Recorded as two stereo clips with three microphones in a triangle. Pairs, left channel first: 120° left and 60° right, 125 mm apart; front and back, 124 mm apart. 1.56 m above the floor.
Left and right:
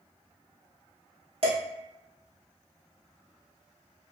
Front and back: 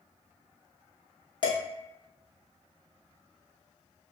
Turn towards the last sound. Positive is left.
turn(degrees=-40)